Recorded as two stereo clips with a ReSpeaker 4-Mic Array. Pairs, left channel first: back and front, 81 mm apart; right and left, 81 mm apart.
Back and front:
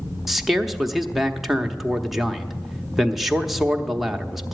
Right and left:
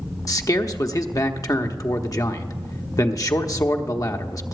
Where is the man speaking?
85° right, 0.8 m.